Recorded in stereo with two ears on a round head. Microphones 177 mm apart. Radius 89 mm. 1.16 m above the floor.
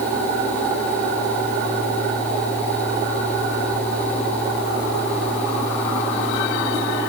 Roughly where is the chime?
No chime in this recording.